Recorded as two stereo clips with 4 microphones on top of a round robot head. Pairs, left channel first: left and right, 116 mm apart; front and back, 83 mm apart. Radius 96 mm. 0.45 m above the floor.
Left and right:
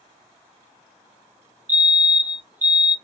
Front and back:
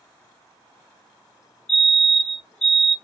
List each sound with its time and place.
1.7 s a fire alarm: 65° right, 2 m